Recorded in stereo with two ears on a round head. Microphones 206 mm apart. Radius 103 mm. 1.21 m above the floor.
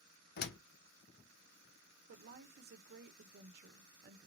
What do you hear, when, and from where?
0.4 s a door slam: 45° left (ahead or behind), 0.5 m
2.1 s a woman speaking: 45° right (ahead or behind), 0.6 m